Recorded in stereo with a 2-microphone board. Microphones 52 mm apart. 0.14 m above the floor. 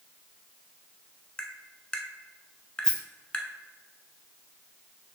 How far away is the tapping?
About 0.5 m.